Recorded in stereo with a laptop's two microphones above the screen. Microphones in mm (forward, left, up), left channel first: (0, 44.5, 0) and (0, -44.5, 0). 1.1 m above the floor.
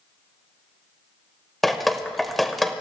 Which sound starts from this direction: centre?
Dripping, at 1.6 s.